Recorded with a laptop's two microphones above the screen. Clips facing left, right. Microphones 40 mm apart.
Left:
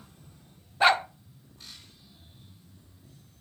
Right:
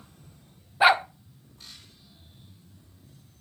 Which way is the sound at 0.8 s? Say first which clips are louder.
Right 2 dB; 10° right (ahead or behind).